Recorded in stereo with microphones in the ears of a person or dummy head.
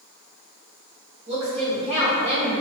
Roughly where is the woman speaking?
Right.